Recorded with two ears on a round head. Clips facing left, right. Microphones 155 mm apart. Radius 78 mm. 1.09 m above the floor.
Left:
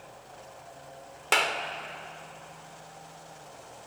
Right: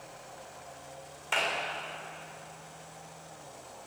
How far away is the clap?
About 2.5 m.